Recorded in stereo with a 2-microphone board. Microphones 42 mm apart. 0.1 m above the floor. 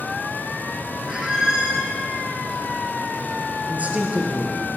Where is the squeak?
20° right (ahead or behind), 3 m.